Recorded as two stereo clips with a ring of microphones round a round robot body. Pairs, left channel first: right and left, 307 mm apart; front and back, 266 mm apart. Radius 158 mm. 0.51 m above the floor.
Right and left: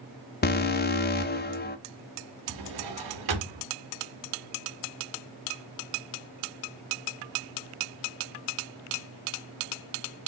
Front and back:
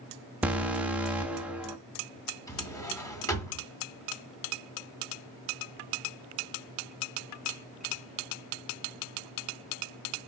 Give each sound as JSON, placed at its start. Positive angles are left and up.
{"t": 0.4, "sound": "an alarm", "azimuth_deg": -100, "distance_m": 0.8}
{"t": 2.5, "sound": "a drawer", "azimuth_deg": 80, "distance_m": 2.0}